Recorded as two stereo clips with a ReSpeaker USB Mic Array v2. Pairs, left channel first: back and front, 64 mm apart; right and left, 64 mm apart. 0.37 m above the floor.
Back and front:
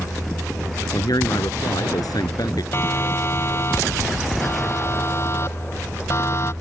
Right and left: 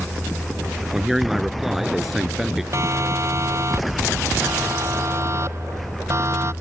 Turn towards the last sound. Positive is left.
turn(degrees=135)